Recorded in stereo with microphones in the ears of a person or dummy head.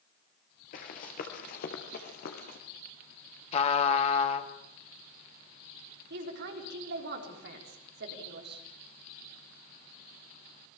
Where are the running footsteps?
45° left (ahead or behind), 2 m; by 2.6 s 55° left (ahead or behind), 3 m.